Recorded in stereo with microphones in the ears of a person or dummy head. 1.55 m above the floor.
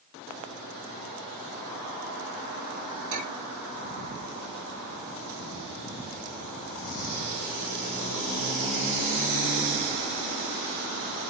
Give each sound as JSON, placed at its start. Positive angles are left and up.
{"t": 3.1, "sound": "a clink", "side_deg": -65, "distance_m": 3.0}